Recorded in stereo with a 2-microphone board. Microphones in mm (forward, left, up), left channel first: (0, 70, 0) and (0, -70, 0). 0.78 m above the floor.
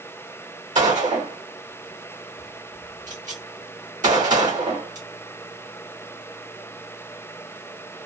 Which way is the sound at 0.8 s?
60° right (ahead or behind).